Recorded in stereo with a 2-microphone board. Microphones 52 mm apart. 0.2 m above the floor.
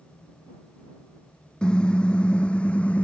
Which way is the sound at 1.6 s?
15° left (ahead or behind).